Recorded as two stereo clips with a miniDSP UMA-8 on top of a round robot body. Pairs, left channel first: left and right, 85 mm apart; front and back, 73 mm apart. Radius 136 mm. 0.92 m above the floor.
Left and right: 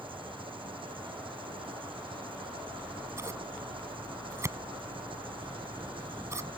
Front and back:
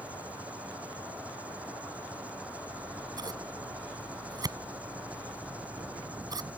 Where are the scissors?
150° right.